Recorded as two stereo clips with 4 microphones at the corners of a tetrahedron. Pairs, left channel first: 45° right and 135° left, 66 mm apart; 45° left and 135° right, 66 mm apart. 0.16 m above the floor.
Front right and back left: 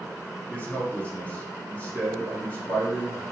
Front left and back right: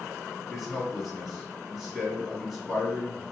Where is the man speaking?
45° right, 1.1 m.